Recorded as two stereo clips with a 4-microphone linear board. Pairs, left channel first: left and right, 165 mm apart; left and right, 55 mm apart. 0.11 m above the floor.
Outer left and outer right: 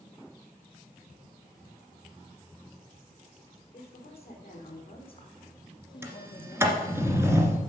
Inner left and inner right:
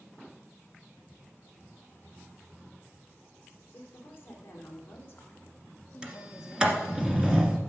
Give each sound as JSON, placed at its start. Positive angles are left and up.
{"t": 3.7, "sound": "a woman speaking", "side_deg": 40, "distance_m": 5.0}
{"t": 6.0, "sound": "a sliding door", "side_deg": -15, "distance_m": 1.8}